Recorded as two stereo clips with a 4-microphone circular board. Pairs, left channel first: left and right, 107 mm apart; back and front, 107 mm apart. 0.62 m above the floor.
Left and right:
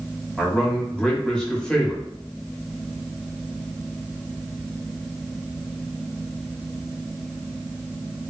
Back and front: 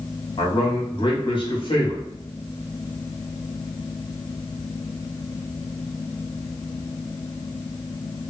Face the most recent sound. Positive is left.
turn(degrees=170)